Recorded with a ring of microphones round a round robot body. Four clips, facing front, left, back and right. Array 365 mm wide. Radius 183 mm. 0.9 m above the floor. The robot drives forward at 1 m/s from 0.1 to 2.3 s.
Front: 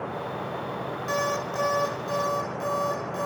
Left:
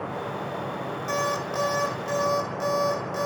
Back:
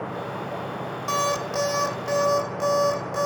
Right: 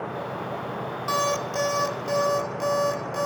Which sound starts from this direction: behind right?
An alarm clock, at 1.1 s.